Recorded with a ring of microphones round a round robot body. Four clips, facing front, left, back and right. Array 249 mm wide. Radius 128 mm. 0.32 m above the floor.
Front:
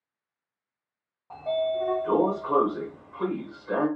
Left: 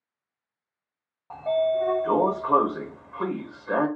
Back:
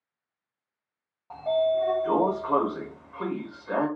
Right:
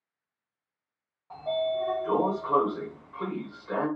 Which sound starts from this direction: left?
A sliding door, at 1.3 s.